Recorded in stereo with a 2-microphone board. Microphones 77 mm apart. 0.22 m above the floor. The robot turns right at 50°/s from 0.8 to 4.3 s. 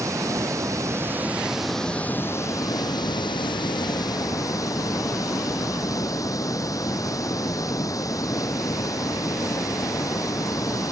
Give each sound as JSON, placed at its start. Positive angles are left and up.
{"t": 0.0, "sound": "running water", "azimuth_deg": -45}